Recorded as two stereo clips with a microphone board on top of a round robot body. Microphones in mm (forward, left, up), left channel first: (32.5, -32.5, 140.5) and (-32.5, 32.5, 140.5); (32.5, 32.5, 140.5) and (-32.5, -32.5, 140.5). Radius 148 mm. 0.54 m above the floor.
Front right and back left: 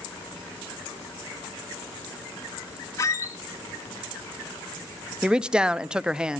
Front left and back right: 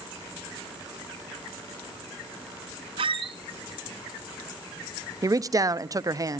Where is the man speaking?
150° right, 0.7 m.